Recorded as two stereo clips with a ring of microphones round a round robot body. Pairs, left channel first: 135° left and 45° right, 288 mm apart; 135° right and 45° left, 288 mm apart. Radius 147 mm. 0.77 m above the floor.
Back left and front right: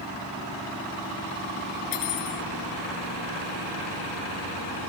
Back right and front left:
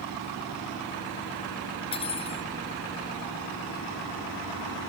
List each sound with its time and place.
1.9 s cutlery clinking: 155° left